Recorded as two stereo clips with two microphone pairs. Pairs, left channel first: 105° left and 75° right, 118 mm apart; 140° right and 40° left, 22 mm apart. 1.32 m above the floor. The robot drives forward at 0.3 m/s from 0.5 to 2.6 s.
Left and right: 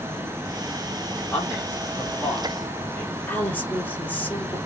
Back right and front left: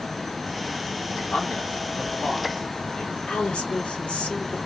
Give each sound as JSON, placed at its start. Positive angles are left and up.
{"t": 1.3, "sound": "a man speaking", "azimuth_deg": -175, "distance_m": 3.0}
{"t": 3.3, "sound": "a woman speaking", "azimuth_deg": 180, "distance_m": 2.5}